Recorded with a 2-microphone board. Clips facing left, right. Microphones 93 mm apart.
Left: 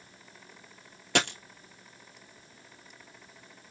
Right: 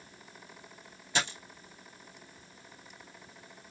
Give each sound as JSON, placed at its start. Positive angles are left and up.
{"t": 1.1, "sound": "a dropped coin", "side_deg": 70, "distance_m": 1.0}